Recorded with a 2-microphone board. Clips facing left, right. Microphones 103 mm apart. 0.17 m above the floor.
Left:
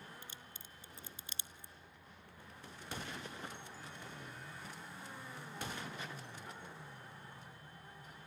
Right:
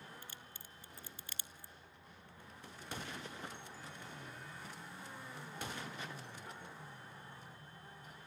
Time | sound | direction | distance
0.2 | a crack | 20° left (ahead or behind) | 0.9 m